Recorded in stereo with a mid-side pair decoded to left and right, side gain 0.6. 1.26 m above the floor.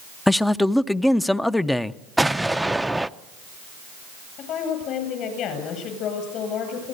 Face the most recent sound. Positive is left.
turn(degrees=60)